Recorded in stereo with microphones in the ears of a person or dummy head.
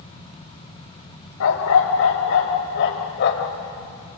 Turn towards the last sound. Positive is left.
turn(degrees=55)  # may be behind; listen again after turning